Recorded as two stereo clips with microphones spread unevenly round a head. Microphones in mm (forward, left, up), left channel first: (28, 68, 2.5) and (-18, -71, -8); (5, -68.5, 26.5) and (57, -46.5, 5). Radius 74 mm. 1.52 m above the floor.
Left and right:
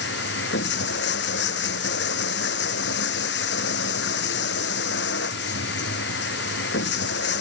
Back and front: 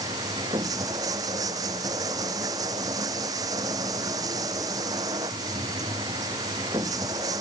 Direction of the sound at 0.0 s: 65° left.